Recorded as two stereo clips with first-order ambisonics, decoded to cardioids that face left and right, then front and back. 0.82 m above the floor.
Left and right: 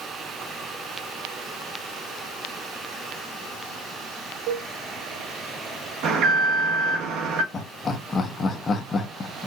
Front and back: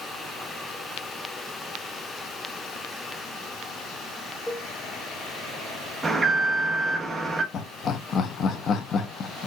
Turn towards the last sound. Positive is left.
turn(degrees=35)